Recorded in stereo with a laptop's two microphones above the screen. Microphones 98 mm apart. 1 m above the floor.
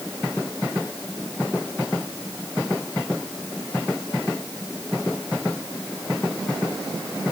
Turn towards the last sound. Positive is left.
No sound to turn to.